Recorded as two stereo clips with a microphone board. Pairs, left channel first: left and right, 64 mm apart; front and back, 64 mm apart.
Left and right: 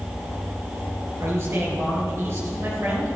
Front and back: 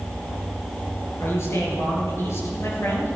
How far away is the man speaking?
About 5.5 m.